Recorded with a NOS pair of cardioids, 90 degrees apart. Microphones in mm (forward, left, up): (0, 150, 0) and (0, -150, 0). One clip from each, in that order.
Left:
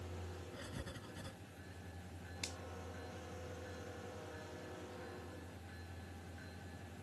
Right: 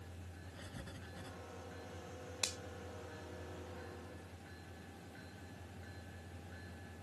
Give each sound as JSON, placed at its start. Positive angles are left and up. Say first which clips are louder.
{"t": 0.5, "sound": "writing", "louder": "even", "azimuth_deg": 20}
{"t": 2.4, "sound": "a finger snap", "louder": "right 7 dB", "azimuth_deg": -60}